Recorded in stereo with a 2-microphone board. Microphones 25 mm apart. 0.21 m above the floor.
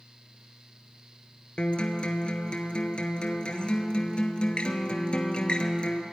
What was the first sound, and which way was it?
A guitar, 45° left (ahead or behind).